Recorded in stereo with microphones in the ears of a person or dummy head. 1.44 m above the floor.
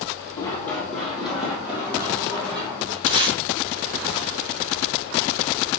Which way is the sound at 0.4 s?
10° left (ahead or behind).